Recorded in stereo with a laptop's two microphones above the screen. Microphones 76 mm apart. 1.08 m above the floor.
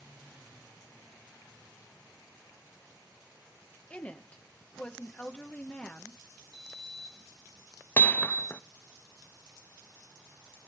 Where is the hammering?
25° left (ahead or behind), 0.6 m.